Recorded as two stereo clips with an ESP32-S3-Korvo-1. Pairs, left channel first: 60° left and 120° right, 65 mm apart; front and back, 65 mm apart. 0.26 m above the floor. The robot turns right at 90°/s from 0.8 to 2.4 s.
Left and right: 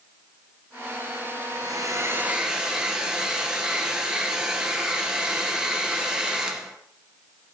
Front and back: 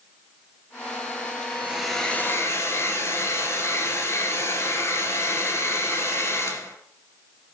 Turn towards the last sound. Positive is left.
turn(degrees=-45)